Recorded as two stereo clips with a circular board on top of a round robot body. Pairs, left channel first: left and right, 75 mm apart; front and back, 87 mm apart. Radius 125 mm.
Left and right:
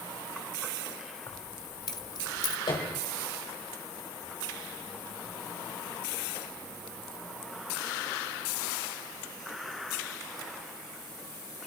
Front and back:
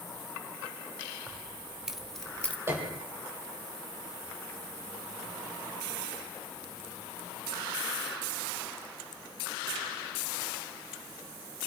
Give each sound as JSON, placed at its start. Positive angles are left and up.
{"t": 1.3, "sound": "keys jangling", "azimuth_deg": 110, "distance_m": 2.0}
{"t": 2.7, "sound": "a piano", "azimuth_deg": 115, "distance_m": 4.5}